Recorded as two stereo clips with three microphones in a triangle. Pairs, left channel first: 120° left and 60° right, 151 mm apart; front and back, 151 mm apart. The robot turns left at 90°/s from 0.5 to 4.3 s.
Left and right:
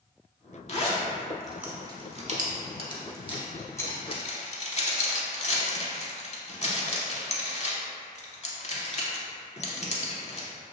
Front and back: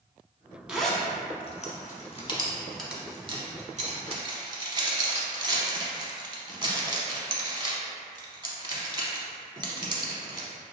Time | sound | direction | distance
0.7 | a zipper | 100° left | 0.6 m